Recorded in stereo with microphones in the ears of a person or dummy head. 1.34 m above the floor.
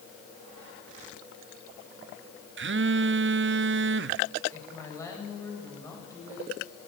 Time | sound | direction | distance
2.6 | a phone buzzing | 50° right (ahead or behind) | 0.5 m
4.5 | a woman speaking | 20° left (ahead or behind) | 8 m